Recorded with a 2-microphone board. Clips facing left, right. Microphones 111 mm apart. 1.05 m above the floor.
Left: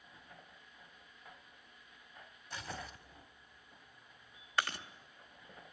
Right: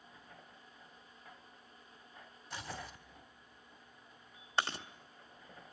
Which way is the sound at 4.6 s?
30° right (ahead or behind).